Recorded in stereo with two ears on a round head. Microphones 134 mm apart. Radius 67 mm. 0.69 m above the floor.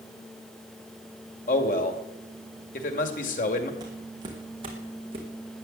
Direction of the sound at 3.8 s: 30° right (ahead or behind).